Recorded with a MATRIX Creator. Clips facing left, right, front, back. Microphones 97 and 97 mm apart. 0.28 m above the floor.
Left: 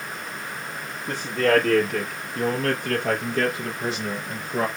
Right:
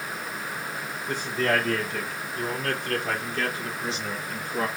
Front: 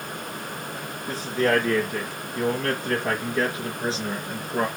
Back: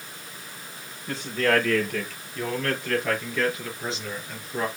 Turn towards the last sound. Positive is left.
turn(degrees=55)